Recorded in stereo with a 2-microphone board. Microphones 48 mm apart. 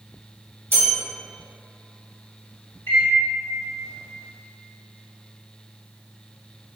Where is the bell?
55° right (ahead or behind), 1.4 m.